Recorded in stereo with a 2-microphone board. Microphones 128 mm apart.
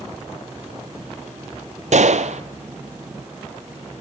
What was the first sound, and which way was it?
A gunshot, 70° right (ahead or behind).